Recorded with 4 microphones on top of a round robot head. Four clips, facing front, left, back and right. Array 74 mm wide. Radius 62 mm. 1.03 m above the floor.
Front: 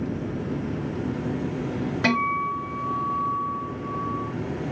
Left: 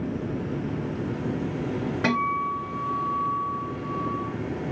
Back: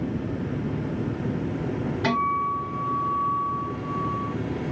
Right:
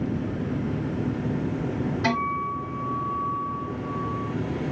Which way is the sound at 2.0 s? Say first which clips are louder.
Left 2 dB, even; 35° left.